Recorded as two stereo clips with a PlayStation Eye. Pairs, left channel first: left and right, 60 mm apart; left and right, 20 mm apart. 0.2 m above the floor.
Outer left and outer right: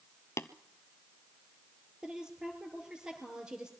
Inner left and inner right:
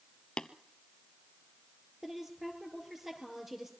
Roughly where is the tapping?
Left.